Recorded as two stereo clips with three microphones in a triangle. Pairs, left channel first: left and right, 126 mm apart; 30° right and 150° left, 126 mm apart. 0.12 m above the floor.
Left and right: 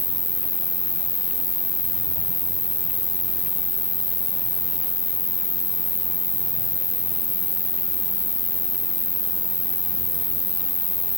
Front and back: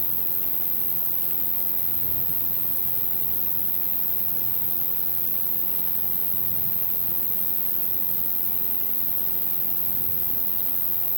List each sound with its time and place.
0.0 s an insect: 75° right